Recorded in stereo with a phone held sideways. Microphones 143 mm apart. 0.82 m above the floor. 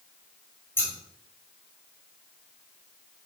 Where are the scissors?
15° left (ahead or behind), 3 m.